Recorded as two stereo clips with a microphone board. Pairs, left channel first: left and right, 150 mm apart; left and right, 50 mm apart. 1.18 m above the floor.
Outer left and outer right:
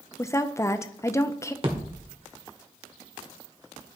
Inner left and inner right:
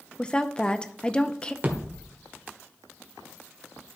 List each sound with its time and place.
0.2 s a woman speaking: 20° left (ahead or behind), 0.6 m
1.6 s a thud: 40° right (ahead or behind), 1.8 m